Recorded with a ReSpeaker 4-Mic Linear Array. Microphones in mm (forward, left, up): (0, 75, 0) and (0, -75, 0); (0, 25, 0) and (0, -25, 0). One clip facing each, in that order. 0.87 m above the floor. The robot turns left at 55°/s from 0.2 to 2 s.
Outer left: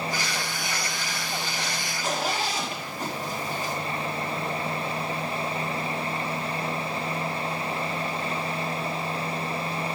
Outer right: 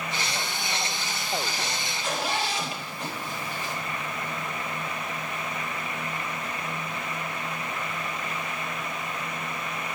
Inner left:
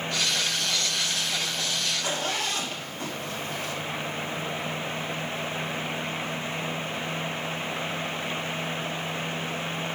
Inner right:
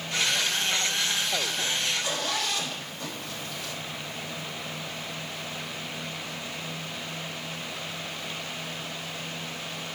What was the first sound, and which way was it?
A zipper, 40° left (ahead or behind).